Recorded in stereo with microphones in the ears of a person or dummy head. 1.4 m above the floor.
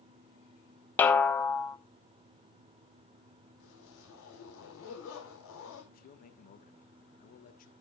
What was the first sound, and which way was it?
A snare drum, 10° left (ahead or behind).